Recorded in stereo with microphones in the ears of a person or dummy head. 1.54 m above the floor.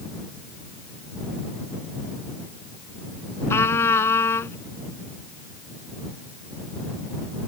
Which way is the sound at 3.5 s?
15° left (ahead or behind).